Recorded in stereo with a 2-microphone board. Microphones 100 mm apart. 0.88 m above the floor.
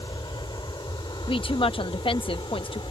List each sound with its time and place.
0.0 s an aircraft: 45° left (ahead or behind); by 2.9 s 55° left (ahead or behind)
1.3 s a woman speaking: 60° left (ahead or behind)